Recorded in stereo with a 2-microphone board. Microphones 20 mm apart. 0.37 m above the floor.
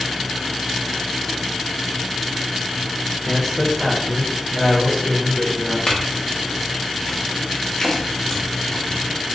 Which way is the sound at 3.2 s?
20° right (ahead or behind).